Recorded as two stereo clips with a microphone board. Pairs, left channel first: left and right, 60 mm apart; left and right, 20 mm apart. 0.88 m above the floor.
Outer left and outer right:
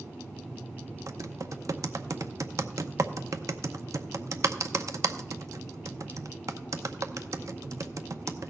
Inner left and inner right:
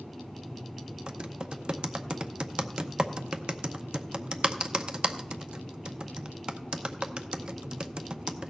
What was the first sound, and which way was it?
Typing on a keyboard, 60° right (ahead or behind).